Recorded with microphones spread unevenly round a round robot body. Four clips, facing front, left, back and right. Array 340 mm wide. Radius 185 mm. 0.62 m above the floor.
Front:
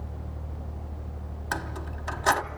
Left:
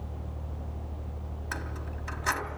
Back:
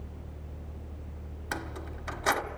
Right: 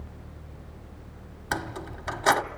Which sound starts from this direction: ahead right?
Keys jangling, at 1.5 s.